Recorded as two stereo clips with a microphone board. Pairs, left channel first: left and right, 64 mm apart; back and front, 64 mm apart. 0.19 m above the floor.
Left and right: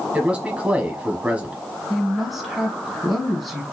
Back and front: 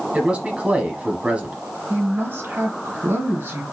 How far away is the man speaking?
About 1.2 m.